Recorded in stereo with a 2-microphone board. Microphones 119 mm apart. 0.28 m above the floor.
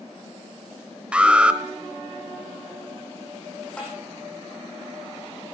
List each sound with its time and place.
1.1 s an alarm: 10° right (ahead or behind), 0.9 m
3.8 s tapping: 10° left (ahead or behind), 5 m